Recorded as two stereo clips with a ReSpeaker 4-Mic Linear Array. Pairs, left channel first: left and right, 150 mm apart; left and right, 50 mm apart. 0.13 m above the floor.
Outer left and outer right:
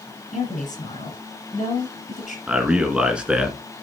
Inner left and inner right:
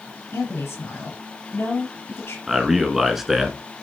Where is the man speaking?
5° right (ahead or behind), 1.4 m.